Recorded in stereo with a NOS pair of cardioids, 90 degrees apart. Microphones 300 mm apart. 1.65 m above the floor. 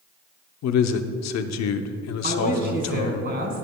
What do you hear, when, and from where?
0.6 s a man speaking: 65° left, 0.7 m
2.2 s a man speaking: 40° right, 2.5 m